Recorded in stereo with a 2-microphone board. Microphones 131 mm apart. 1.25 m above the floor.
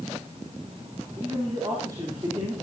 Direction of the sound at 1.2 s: 30° right (ahead or behind).